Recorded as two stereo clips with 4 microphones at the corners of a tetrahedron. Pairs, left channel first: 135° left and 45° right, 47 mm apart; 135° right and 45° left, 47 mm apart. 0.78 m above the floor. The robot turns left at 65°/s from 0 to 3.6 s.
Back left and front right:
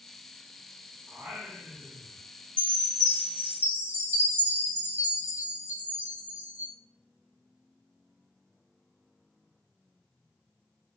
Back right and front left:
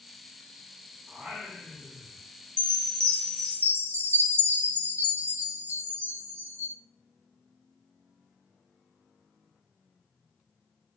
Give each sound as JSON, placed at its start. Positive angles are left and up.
{"t": 1.1, "sound": "singing", "azimuth_deg": -15, "distance_m": 0.9}
{"t": 2.6, "sound": "a chime", "azimuth_deg": 75, "distance_m": 0.7}